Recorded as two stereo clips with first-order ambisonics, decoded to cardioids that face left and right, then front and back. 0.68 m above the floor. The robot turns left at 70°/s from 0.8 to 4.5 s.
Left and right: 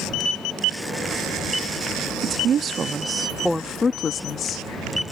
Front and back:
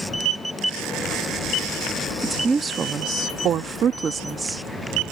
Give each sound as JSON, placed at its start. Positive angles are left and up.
{"t": 2.2, "sound": "a woman speaking", "azimuth_deg": -95}